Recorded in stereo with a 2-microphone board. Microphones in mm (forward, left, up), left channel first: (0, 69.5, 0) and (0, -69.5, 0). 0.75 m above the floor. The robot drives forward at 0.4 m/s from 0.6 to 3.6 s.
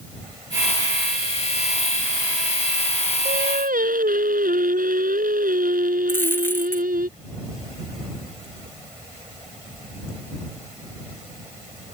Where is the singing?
90° right.